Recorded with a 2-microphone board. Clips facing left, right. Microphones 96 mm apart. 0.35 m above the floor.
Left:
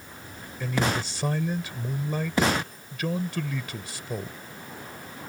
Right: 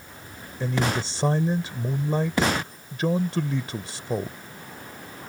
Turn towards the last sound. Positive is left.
turn(degrees=-30)  # may be behind; listen again after turning